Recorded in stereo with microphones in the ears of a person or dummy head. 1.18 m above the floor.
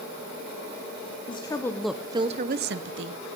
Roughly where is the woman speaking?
Left.